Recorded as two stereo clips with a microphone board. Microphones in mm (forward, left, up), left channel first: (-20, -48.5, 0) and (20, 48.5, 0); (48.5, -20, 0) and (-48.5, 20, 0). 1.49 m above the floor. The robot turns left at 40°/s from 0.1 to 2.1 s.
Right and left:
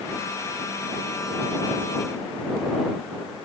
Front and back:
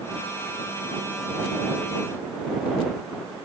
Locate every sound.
Only background noise.